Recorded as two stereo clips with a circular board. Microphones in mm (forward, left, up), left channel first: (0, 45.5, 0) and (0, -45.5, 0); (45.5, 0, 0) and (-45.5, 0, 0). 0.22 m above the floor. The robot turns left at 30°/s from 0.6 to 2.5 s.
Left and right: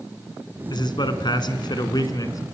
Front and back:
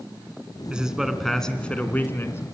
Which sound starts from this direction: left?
A man speaking, at 0.7 s.